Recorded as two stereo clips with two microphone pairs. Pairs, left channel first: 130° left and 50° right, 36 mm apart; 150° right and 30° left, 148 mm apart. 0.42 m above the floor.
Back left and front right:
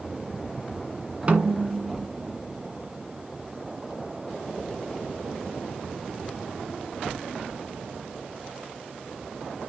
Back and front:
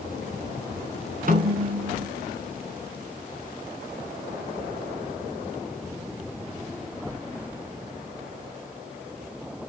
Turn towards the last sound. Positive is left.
turn(degrees=0)